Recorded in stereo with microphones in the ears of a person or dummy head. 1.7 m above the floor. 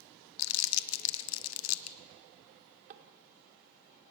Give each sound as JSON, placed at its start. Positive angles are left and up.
{"t": 0.4, "sound": "crumpling", "side_deg": 70, "distance_m": 0.9}
{"t": 2.5, "sound": "a drawer", "side_deg": -40, "distance_m": 2.0}